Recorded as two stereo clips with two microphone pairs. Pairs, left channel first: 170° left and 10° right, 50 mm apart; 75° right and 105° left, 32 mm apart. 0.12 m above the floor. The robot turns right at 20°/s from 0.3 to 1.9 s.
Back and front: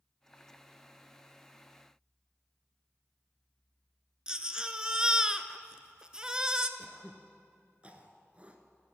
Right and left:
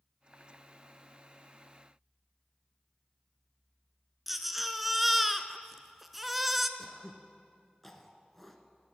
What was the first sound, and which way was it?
A baby crying, 25° left.